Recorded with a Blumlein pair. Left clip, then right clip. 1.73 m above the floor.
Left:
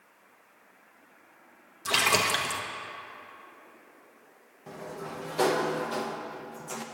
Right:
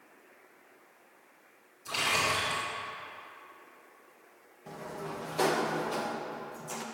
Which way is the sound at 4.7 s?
5° left.